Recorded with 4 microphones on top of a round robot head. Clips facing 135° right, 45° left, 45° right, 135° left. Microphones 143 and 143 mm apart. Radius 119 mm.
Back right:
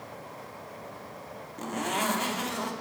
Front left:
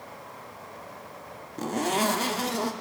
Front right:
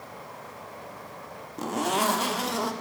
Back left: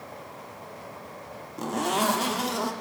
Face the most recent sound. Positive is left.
turn(degrees=45)